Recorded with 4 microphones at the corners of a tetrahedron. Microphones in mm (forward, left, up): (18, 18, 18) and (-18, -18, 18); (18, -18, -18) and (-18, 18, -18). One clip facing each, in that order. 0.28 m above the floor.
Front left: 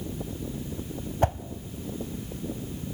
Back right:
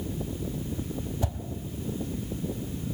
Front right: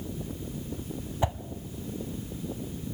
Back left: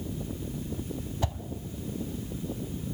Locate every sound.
1.2 s a whoosh: 20° left, 1.0 m